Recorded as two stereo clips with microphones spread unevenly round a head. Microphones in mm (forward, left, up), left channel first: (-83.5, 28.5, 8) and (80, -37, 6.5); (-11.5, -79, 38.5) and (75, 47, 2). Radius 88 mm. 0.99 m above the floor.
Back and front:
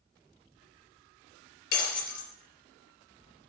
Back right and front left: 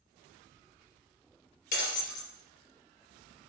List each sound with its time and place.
1.7 s breaking glass: 165° right, 3.5 m